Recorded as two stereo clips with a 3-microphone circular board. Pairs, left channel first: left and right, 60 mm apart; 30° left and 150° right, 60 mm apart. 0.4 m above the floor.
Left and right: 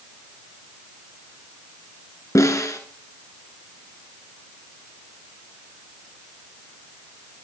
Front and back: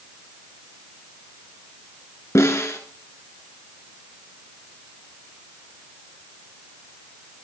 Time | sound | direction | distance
2.4 | a snare drum | 65° left | 2 m